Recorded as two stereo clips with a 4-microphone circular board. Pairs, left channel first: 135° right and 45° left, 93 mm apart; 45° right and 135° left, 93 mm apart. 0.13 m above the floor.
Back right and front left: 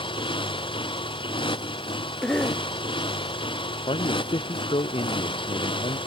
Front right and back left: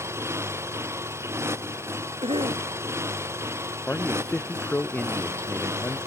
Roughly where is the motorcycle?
Behind.